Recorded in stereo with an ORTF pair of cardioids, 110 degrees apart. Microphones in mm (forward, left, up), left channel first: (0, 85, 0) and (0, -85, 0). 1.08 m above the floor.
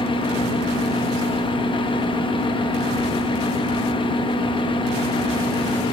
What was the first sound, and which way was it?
A fan, 30° left.